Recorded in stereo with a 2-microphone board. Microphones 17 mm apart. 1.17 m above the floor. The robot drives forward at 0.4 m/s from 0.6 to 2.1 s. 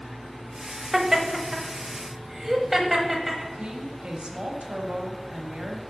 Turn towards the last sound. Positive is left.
turn(degrees=-70)  # may be behind; listen again after turning